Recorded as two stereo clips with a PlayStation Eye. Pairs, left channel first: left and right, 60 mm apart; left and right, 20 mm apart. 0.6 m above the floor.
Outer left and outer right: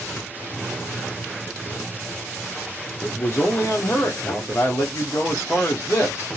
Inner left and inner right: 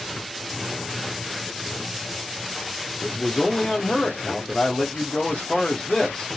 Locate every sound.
3.0 s a man speaking: 35° left (ahead or behind), 1.5 m